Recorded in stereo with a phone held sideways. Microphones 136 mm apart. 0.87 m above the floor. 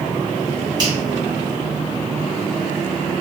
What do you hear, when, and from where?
0.8 s a finger snap: 30° right (ahead or behind), 1.1 m